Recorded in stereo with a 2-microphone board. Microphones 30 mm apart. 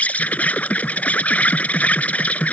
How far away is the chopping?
No chopping in this recording.